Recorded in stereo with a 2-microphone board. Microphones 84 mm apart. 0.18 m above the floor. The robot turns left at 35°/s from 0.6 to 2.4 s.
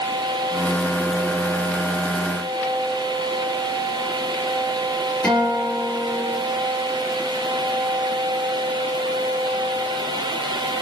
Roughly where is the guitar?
Centre.